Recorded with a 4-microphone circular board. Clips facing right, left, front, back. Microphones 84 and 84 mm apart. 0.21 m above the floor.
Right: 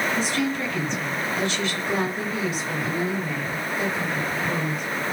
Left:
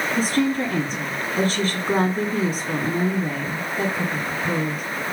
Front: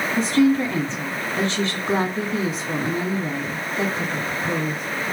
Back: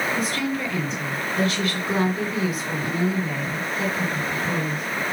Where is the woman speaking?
50° left, 2 m.